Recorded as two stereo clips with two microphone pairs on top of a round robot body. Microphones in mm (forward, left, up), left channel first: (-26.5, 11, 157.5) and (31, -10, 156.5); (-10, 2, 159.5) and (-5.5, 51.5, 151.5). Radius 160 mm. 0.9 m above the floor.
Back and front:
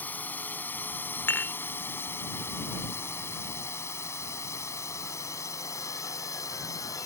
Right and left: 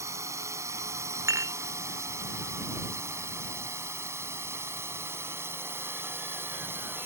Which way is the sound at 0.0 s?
95° left.